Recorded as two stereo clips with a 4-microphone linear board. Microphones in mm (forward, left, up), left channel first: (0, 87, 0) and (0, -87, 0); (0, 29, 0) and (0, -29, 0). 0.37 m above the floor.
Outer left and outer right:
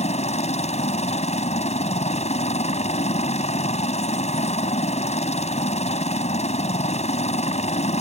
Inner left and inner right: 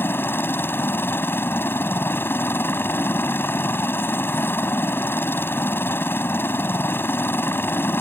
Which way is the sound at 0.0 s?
40° left (ahead or behind).